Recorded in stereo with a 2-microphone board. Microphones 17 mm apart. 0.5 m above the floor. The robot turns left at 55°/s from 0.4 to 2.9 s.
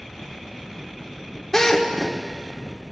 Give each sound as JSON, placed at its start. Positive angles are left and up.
{"t": 1.5, "sound": "a drill", "side_deg": 20, "distance_m": 1.4}